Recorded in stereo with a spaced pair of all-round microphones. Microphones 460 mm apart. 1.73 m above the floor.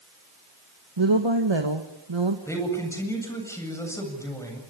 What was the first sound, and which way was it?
A woman speaking, 75° right (ahead or behind).